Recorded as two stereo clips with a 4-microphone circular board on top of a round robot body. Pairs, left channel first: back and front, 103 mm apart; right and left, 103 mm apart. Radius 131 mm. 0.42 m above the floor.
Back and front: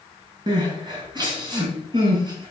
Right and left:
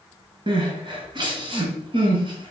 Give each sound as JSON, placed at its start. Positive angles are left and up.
{"t": 0.5, "sound": "crying", "azimuth_deg": 45, "distance_m": 3.0}